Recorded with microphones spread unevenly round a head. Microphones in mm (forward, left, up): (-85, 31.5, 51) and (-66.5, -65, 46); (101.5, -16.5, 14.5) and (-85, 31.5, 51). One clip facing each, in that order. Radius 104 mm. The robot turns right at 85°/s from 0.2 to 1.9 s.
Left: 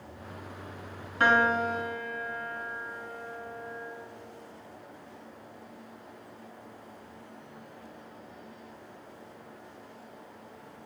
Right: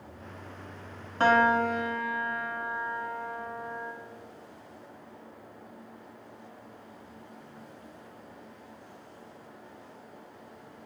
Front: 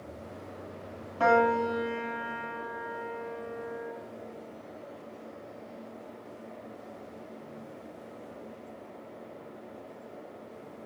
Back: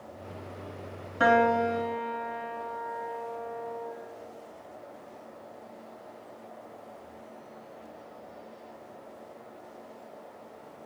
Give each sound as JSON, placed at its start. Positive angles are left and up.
{"t": 1.2, "sound": "a piano", "azimuth_deg": -125, "distance_m": 1.3}